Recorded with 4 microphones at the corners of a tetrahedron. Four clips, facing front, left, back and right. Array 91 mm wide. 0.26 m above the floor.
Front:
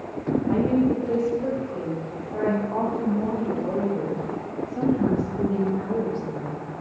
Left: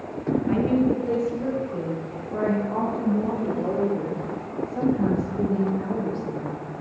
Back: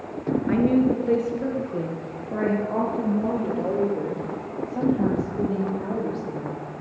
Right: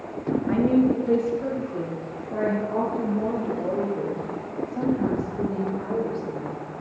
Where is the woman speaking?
165° right, 3.5 m; by 6.7 s 175° left, 7.5 m.